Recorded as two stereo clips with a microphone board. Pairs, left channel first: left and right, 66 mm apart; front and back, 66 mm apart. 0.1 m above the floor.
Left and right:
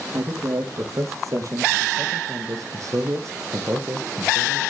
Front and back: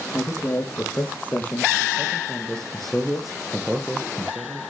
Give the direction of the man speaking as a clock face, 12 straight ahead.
2 o'clock.